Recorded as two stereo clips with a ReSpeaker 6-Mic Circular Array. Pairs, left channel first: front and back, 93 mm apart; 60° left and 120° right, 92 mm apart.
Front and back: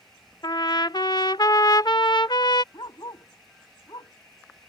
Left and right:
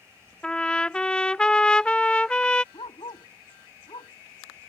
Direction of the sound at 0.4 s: 15° right.